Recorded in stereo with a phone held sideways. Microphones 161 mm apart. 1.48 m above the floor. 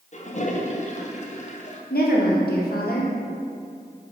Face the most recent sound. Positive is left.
turn(degrees=75)  # may be behind; listen again after turning